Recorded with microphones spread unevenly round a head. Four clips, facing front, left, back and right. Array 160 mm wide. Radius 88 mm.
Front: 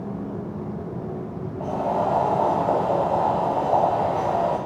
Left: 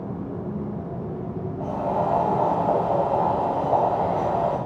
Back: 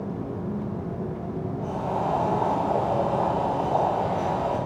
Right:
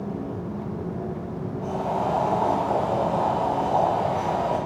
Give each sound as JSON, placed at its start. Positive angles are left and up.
{"t": 1.6, "sound": "boiling", "azimuth_deg": 25, "distance_m": 7.0}